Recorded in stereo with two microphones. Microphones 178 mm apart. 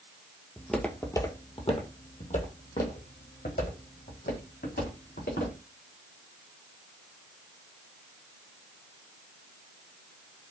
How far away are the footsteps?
About 0.8 m.